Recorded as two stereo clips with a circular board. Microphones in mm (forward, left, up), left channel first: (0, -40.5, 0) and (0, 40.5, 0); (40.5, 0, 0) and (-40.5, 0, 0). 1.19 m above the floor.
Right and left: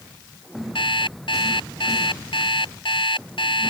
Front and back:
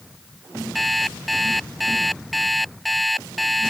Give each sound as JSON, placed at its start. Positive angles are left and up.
{"t": 0.8, "sound": "an alarm clock", "azimuth_deg": -90}